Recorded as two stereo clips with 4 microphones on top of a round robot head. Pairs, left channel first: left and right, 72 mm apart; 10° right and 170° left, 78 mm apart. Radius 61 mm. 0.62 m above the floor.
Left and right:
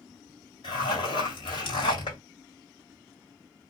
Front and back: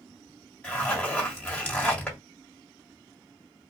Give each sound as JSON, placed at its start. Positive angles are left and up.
{"t": 0.6, "sound": "a zipper", "azimuth_deg": 65, "distance_m": 1.5}